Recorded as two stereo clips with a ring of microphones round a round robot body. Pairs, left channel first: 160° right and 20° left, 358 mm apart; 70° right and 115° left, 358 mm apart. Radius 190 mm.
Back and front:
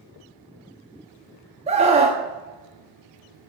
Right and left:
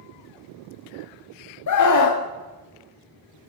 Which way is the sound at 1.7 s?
45° right.